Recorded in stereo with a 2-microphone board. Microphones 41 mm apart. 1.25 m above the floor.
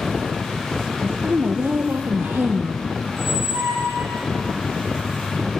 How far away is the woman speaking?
About 0.8 m.